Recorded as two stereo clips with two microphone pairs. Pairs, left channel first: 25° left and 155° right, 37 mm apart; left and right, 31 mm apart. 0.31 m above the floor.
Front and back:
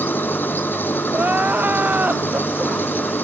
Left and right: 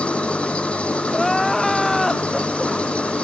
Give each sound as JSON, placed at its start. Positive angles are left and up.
{"t": 0.0, "sound": "an engine running", "azimuth_deg": 45}
{"t": 1.1, "sound": "crying", "azimuth_deg": 175}